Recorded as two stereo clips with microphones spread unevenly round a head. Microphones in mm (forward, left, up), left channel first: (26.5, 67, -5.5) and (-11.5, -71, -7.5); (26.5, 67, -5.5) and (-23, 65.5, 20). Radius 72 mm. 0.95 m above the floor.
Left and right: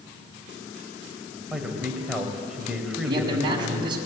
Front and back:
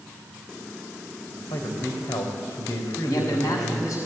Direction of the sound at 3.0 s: 45° right.